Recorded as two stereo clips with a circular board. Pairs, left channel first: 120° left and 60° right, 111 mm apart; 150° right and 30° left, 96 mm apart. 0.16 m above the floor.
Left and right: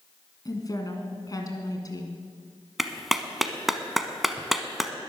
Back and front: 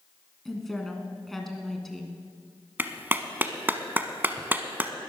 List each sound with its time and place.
0.5 s a woman speaking: 125° left, 1.9 m
2.8 s a clap: 25° left, 0.9 m